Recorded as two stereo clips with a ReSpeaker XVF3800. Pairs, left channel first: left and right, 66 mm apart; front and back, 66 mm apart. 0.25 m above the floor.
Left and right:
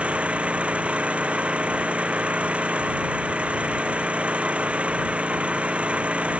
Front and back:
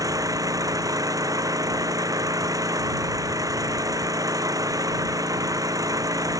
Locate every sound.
0.0 s an engine running: 160° right